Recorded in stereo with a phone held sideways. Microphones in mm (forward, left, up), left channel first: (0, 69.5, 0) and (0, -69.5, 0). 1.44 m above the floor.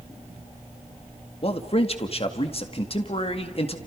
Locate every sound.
1.4 s a man speaking: 45° left (ahead or behind), 2.0 m